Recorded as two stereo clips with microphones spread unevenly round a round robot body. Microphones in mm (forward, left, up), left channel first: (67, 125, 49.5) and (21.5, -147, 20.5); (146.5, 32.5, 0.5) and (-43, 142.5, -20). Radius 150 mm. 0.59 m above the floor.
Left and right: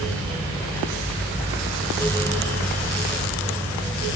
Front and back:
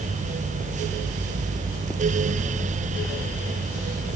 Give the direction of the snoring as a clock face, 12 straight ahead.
I don't hear snoring.